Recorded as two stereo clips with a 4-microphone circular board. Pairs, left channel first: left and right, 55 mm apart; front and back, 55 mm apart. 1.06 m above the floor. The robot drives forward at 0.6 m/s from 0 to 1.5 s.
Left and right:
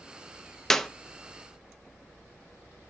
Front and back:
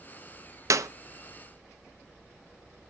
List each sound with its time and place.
0.7 s a clap: 175° left, 0.5 m